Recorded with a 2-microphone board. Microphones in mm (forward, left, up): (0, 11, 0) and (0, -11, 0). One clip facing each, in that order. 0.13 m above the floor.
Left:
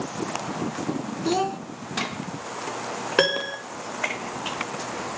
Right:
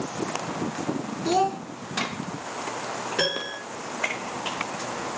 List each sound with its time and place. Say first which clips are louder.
1.2 s a child speaking: right 2 dB; 5° left (ahead or behind), 0.6 m
3.2 s a piano: left 5 dB; 85° left, 3 m